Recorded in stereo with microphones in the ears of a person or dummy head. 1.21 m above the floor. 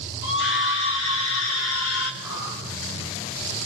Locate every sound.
0.2 s a scream: 65° left (ahead or behind), 5 m; by 2.1 s 80° left, 4 m
2.2 s a whoosh: 75° left (ahead or behind), 9.5 m